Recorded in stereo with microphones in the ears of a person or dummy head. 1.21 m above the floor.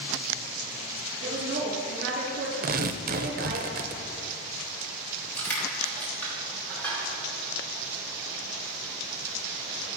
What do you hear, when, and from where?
1.2 s a woman speaking: 75° right (ahead or behind), 3 m
2.6 s tearing paper: 45° right (ahead or behind), 0.6 m
5.4 s crushing: 10° left (ahead or behind), 3.5 m